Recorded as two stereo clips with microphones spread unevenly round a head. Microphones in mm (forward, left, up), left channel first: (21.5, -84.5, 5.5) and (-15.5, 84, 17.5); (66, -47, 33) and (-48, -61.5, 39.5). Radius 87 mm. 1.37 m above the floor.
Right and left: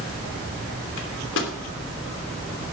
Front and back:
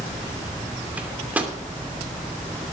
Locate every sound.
1.0 s a microwave: 95° right, 2.5 m